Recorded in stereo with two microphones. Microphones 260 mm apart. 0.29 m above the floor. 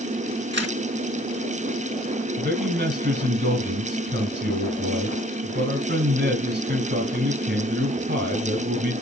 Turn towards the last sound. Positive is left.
turn(degrees=-40)  # may be behind; listen again after turning